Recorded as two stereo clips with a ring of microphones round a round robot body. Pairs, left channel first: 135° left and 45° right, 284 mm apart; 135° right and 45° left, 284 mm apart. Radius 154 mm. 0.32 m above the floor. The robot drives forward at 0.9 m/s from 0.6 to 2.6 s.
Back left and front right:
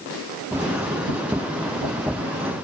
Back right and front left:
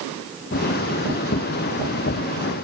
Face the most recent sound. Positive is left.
No sound to turn to.